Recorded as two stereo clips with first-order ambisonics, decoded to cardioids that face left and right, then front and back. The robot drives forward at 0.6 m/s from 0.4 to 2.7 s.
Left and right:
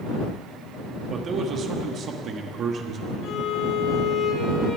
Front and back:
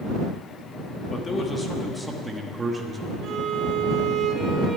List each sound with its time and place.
1.1 s a man speaking: 45° right, 1.4 m; by 3.1 s 120° right, 1.3 m
3.2 s a violin: 130° left, 2 m